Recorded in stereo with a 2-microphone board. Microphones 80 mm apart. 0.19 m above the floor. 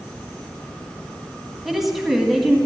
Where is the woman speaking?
5° right (ahead or behind), 1.4 m.